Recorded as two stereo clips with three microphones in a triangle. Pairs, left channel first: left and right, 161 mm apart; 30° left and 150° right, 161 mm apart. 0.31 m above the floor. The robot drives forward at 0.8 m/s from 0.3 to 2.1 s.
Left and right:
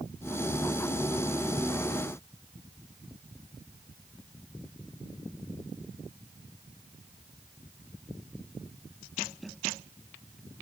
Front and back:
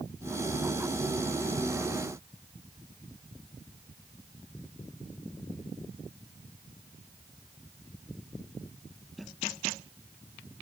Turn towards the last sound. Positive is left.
No sound to turn to.